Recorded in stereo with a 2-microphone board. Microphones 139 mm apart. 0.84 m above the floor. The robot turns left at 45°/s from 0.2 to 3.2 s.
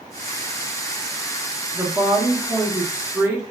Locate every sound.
1.7 s a woman speaking: 20° right (ahead or behind), 0.6 m; by 3.4 s 15° right (ahead or behind), 0.6 m